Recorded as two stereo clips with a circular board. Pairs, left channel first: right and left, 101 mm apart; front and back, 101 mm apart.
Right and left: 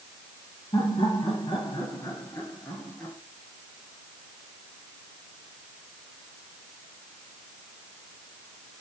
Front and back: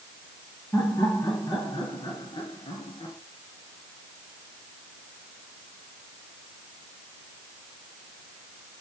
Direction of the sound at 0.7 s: 60° right.